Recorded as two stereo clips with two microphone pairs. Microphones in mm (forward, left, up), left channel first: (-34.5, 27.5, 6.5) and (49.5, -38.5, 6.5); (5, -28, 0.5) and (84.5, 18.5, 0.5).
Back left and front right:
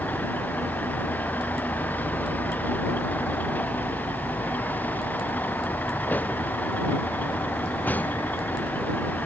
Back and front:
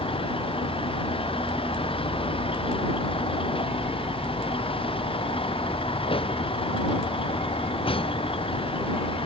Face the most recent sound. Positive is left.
turn(degrees=-145)